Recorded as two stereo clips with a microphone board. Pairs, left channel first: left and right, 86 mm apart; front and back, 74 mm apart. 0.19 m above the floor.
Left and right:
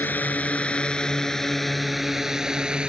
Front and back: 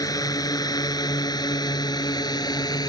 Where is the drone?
20° left; by 2.9 s 15° right.